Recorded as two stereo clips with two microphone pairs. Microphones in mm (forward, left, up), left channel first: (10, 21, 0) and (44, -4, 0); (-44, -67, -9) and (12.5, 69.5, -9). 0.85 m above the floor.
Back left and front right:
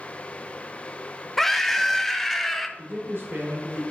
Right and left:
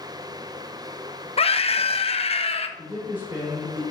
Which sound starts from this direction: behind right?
A scream, at 1.4 s.